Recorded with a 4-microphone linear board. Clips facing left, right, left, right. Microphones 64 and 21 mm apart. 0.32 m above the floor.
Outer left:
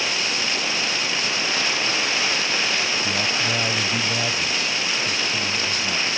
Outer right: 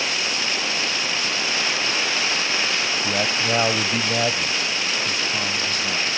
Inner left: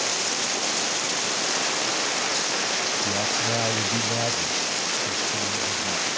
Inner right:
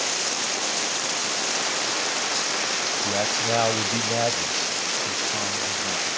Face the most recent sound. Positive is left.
turn(degrees=-20)  # may be behind; listen again after turning